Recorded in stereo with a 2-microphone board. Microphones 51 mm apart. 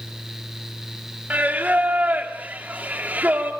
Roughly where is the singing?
Right.